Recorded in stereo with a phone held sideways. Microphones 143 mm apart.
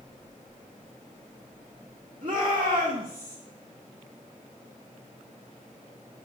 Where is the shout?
40° right (ahead or behind), 2.5 m; by 3.4 s 20° right (ahead or behind), 1.9 m.